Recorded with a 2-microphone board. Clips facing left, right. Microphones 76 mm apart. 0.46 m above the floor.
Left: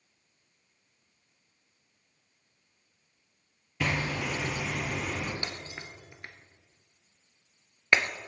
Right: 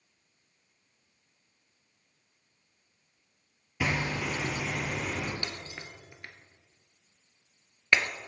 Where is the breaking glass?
15° left (ahead or behind), 1.0 m.